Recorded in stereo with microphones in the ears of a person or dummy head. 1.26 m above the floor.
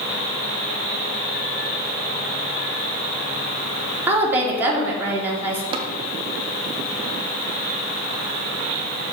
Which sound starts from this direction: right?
Tapping, at 5.7 s.